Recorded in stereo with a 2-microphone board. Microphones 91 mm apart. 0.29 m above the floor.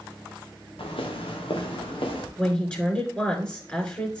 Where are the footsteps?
80° left, 2.5 m; by 2.3 s 75° left (ahead or behind), 4 m.